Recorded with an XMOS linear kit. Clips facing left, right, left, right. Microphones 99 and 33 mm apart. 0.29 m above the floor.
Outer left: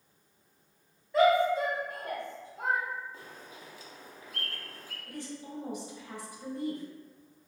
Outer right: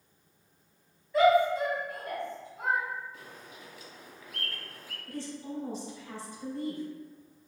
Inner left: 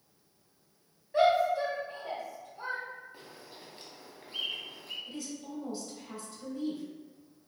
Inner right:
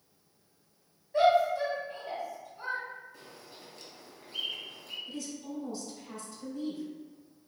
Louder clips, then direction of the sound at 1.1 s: Outer right 1 dB, inner right 1 dB; 30° left (ahead or behind).